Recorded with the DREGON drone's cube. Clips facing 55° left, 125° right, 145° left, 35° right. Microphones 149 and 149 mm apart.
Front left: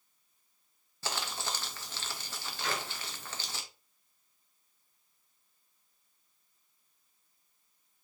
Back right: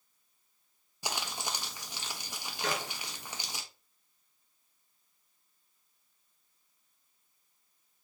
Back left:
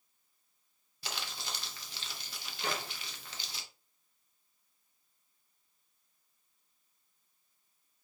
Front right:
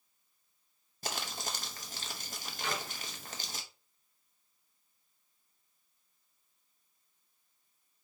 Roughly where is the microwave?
Behind.